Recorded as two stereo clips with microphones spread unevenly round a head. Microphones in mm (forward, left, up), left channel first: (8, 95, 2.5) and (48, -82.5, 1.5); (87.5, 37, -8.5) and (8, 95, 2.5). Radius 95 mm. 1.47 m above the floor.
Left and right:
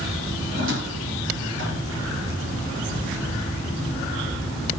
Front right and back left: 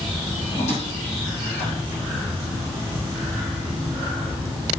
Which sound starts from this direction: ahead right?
A squeak, at 0.5 s.